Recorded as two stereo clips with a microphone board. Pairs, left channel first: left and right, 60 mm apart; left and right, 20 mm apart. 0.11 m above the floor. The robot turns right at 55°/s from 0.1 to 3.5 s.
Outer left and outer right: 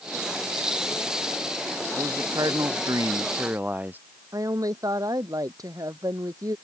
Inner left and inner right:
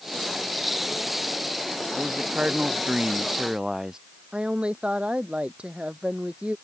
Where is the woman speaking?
75° right (ahead or behind).